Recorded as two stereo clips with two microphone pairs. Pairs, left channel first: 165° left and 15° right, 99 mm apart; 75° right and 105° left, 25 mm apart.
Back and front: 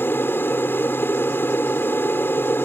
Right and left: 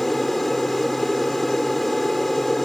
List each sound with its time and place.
0.0 s an aircraft: 150° right